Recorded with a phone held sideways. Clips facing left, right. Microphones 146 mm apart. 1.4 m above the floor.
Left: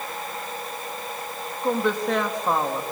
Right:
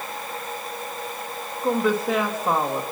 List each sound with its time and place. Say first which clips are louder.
1.6 s a woman speaking: right 1 dB; 5° right (ahead or behind), 2.5 m